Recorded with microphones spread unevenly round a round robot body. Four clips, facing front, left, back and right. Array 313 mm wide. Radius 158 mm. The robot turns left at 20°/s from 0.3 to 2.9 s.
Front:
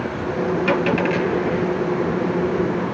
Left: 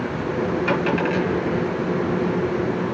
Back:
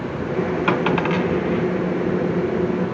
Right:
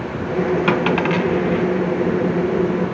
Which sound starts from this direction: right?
A dropped coin, at 0.7 s.